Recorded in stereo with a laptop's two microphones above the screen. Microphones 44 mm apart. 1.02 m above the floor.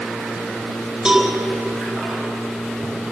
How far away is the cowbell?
About 7.5 m.